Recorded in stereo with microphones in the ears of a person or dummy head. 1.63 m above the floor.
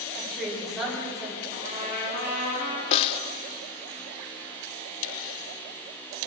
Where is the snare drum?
30° left (ahead or behind), 0.5 m.